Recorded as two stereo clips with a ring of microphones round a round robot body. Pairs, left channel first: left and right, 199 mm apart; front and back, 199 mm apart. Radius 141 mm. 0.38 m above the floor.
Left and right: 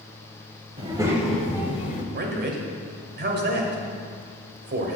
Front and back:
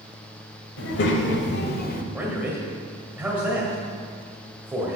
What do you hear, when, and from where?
0.8 s a child speaking: 25° right, 1.4 m; by 2.0 s 40° left, 1.3 m
2.1 s a man speaking: 95° right, 1.7 m